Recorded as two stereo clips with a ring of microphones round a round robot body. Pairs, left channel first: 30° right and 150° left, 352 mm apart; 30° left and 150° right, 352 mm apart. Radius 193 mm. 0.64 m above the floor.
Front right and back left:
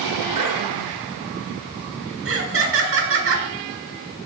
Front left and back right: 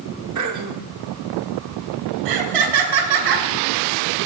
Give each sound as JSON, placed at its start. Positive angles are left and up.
{"t": 0.3, "sound": "throat clearing", "azimuth_deg": 175, "distance_m": 2.0}
{"t": 2.2, "sound": "laughter", "azimuth_deg": -155, "distance_m": 5.5}